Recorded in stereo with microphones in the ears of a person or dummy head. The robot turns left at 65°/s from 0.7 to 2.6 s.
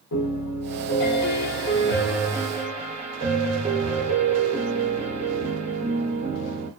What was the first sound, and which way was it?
A piano, 85° left.